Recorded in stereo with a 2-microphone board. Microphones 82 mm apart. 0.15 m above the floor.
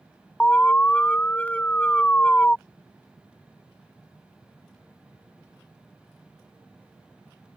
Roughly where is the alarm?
Centre.